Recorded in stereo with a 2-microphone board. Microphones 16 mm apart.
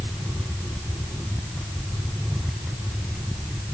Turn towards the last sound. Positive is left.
No sound to turn to.